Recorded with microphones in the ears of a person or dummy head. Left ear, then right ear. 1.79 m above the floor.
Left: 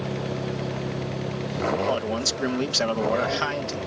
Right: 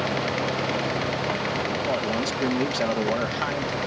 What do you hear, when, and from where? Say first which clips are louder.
1.9 s a man speaking: even; 30° left (ahead or behind)